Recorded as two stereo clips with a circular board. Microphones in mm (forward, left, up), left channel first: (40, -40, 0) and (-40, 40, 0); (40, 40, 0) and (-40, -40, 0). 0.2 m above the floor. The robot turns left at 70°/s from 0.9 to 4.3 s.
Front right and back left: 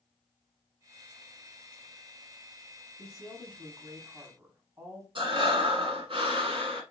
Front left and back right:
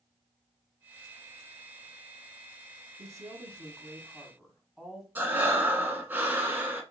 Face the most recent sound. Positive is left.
turn(degrees=155)